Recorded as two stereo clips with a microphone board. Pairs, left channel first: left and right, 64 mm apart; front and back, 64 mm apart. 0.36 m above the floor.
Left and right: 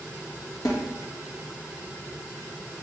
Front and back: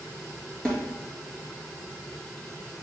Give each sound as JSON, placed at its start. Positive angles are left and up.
{"t": 0.7, "sound": "a snare drum", "azimuth_deg": 80, "distance_m": 2.5}